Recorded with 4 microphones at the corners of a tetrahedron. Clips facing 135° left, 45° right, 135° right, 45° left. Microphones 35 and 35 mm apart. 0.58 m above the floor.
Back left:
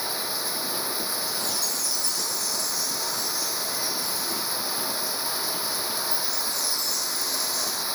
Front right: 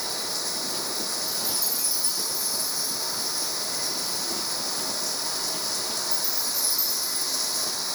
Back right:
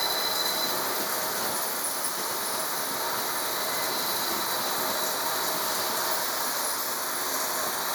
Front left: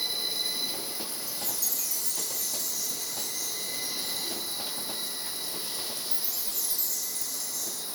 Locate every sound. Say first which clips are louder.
0.0 s running water: back left 1 dB, back right 4 dB; 150° right
1.3 s a chime: back left 1 dB, back right 8 dB; 35° left